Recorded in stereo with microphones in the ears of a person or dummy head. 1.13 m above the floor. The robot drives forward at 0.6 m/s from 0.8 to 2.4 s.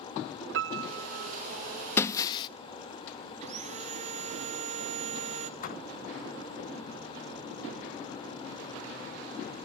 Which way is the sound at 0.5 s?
60° right (ahead or behind).